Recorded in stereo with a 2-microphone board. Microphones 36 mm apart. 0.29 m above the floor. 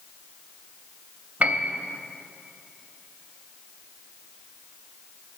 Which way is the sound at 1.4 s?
40° right (ahead or behind).